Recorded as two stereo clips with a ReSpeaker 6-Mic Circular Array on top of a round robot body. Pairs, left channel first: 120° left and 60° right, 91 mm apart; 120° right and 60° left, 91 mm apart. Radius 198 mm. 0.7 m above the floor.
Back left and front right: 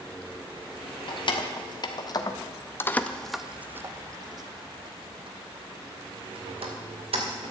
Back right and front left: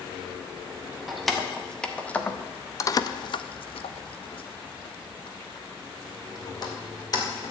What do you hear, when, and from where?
1.1 s keys jangling: 150° left, 1.6 m; by 7.5 s 70° right, 2.5 m